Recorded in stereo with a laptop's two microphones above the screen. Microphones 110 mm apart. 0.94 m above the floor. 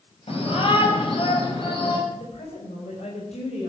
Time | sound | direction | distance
0.3 | a shout | 60° left (ahead or behind) | 6.5 m
2.1 | a woman speaking | 85° left | 5 m